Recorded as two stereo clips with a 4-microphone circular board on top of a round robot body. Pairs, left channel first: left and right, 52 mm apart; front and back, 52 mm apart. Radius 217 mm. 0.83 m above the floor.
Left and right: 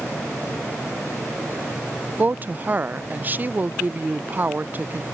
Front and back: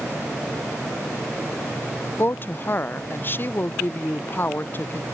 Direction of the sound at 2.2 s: 40° right.